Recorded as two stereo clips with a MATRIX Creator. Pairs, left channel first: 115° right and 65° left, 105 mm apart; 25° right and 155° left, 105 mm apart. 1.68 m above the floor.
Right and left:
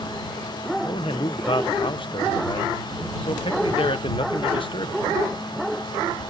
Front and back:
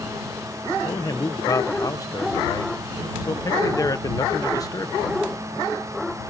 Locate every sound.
0.8 s a man speaking: 80° right